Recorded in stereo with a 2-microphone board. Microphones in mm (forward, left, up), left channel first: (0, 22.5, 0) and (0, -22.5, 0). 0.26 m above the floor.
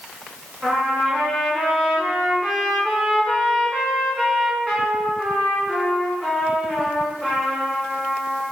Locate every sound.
0.6 s a trumpet: 10° right (ahead or behind), 2.5 m